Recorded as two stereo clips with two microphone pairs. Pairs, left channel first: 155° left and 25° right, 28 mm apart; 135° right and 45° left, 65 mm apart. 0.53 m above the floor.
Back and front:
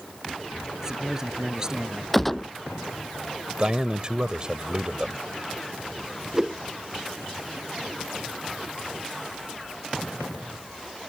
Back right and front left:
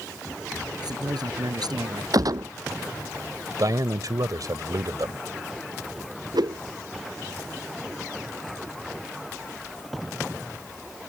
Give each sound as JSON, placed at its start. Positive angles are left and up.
{"t": 0.8, "sound": "a man speaking", "azimuth_deg": 45}
{"t": 2.1, "sound": "a gunshot", "azimuth_deg": 75}
{"t": 3.6, "sound": "a man speaking", "azimuth_deg": 30}
{"t": 6.3, "sound": "a whoosh", "azimuth_deg": 50}